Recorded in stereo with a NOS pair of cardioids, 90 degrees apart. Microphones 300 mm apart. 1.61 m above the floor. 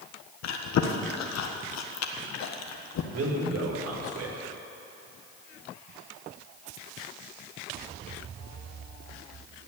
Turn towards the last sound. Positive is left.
turn(degrees=-60)